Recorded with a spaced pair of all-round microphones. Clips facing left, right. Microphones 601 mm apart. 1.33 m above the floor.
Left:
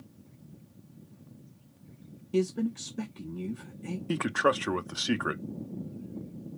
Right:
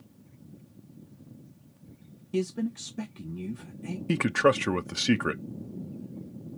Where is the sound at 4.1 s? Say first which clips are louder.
Right 4 dB; 55° right (ahead or behind), 0.5 m.